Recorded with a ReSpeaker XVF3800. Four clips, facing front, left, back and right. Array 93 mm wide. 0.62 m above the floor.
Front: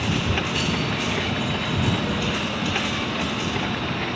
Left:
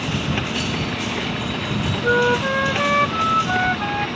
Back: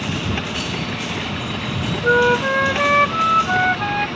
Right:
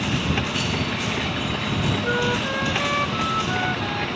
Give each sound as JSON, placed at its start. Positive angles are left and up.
{"t": 2.0, "sound": "a flute", "azimuth_deg": 155}